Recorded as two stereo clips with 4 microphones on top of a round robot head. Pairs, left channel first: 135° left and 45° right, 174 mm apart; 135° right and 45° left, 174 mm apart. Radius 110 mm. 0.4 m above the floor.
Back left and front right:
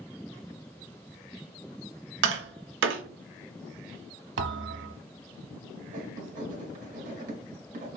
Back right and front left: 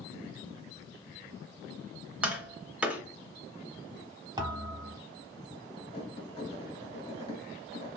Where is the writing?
80° right, 1.2 m.